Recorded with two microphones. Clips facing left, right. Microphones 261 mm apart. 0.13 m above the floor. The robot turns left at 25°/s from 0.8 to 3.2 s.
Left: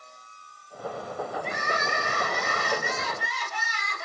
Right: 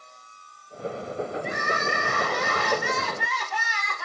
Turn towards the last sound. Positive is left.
turn(degrees=-95)